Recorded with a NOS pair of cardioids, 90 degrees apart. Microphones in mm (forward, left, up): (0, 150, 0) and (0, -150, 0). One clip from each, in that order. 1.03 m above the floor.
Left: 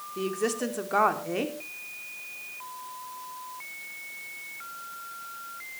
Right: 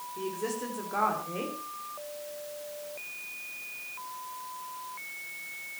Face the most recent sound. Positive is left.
turn(degrees=55)